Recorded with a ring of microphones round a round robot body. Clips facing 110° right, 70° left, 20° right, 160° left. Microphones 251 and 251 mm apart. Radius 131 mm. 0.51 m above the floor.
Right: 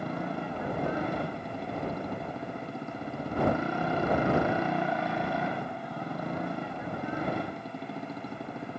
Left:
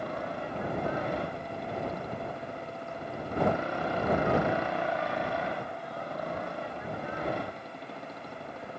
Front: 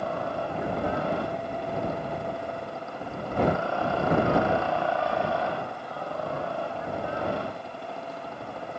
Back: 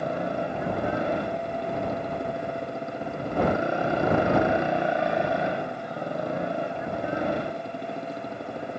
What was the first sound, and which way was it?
A motorcycle, 130° right.